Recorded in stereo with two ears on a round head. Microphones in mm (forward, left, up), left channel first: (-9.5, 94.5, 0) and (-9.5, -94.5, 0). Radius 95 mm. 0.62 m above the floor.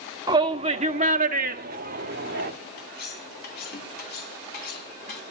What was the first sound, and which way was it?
A shout, 20° right (ahead or behind).